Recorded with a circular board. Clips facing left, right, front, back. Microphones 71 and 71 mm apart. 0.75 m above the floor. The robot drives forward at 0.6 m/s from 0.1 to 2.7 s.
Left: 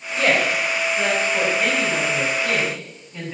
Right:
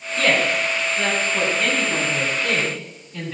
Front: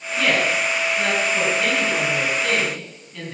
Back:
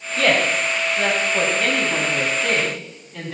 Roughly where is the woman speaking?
Behind.